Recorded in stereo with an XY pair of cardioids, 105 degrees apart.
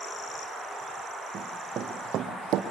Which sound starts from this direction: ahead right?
Running footsteps, at 1.3 s.